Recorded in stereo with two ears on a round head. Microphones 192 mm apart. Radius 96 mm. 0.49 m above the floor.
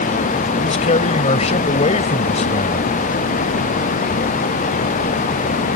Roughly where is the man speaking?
Left.